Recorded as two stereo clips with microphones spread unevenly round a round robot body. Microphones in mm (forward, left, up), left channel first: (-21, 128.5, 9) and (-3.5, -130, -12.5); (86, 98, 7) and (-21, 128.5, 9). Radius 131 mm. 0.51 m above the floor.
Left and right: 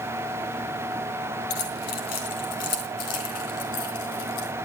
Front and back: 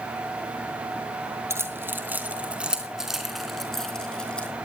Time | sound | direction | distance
1.5 | keys jangling | 100° left | 4 m